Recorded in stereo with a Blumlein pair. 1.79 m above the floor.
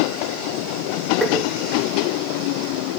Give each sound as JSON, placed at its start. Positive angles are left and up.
{"t": 1.2, "sound": "tapping", "azimuth_deg": -5, "distance_m": 3.0}